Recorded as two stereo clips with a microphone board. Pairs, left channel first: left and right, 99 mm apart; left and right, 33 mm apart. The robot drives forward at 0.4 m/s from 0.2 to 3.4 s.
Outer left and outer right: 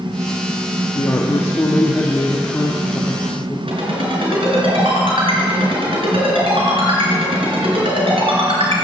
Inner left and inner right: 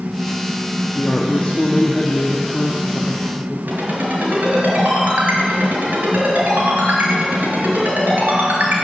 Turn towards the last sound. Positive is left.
turn(degrees=-70)  # may be behind; listen again after turning